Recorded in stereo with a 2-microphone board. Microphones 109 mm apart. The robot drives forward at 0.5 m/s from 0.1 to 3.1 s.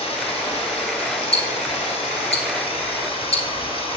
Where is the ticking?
75° left (ahead or behind), 1.8 m; by 4.0 s 70° left (ahead or behind), 1.9 m.